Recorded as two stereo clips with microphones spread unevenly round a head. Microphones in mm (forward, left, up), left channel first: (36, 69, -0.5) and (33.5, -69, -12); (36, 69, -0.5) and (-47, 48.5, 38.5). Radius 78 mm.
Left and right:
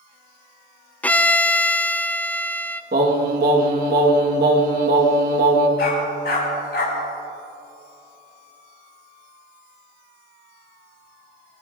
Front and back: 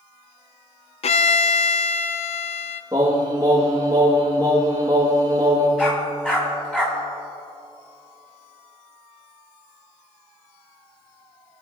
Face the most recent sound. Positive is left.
turn(degrees=100)